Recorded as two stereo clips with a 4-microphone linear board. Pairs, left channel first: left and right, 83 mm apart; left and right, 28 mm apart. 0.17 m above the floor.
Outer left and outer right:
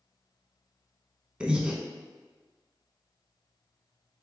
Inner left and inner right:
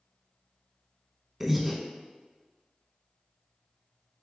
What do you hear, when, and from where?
1.4 s breathing: 10° right (ahead or behind), 0.5 m